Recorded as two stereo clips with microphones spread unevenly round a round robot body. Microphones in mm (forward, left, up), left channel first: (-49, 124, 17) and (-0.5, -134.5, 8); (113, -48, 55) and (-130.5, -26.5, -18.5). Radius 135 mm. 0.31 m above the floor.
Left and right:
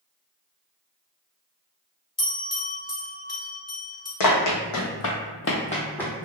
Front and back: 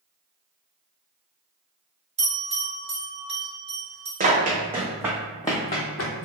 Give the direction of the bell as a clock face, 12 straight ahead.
7 o'clock.